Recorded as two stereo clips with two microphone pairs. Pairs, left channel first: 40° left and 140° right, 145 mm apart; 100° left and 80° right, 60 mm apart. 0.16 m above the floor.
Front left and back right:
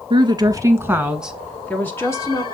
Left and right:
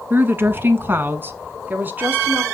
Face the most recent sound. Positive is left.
turn(degrees=-20)